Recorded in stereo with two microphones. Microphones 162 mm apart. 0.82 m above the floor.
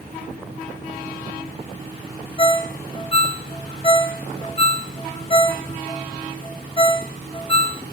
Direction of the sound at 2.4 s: 35° left (ahead or behind).